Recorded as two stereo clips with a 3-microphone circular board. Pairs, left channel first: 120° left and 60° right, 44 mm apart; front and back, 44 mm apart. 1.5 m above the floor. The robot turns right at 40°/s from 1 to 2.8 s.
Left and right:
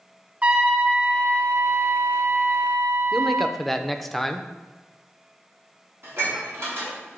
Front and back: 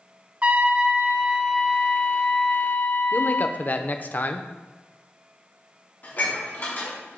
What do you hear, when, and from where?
0.4 s a trumpet: 120° right, 0.7 m; by 3.6 s 45° right, 0.7 m
3.1 s a man speaking: 35° left, 0.6 m
6.0 s dishes clattering: 45° right, 2.5 m